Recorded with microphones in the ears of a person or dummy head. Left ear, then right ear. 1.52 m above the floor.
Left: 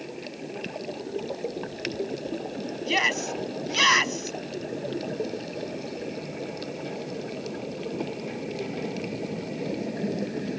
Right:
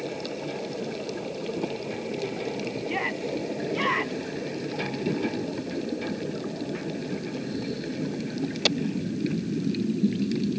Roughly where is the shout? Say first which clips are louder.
Left 7 dB; left.